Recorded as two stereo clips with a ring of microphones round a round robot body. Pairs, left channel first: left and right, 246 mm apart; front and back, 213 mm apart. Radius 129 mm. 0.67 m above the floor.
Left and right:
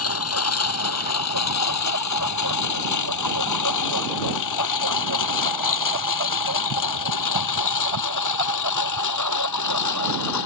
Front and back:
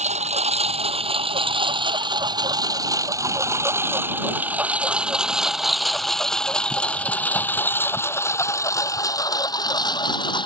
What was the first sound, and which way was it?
A lawn mower, 120° left.